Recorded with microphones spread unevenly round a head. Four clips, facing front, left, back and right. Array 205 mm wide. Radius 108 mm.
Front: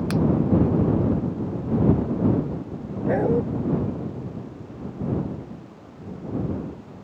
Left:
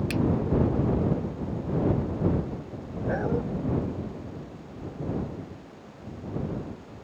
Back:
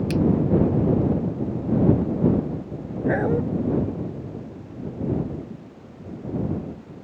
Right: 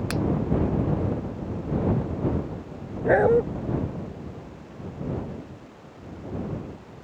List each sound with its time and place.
0.1 s a finger snap: 25° right
3.0 s a dog barking: 60° right